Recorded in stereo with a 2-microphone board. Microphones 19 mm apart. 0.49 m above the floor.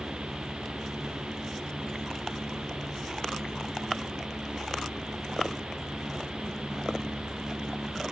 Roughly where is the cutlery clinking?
I don't hear cutlery clinking.